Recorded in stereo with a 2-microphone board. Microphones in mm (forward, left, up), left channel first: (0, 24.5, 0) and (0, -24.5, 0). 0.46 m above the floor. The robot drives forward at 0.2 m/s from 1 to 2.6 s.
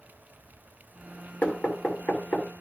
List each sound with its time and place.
1.4 s knocking: 35° left (ahead or behind), 1.5 m; by 2.5 s 30° left (ahead or behind), 1.6 m